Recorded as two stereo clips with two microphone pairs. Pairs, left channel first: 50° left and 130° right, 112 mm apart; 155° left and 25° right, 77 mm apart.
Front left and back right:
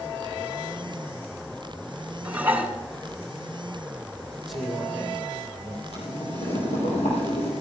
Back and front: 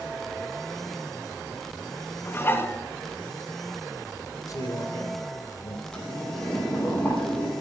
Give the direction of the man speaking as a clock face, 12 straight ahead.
7 o'clock.